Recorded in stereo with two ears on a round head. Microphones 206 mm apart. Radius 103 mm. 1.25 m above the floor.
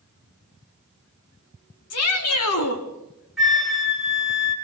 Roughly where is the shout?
Left.